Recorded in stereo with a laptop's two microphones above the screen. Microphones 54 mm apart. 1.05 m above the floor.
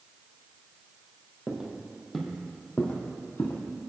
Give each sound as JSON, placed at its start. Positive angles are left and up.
{"t": 1.5, "sound": "footsteps", "side_deg": -25, "distance_m": 1.5}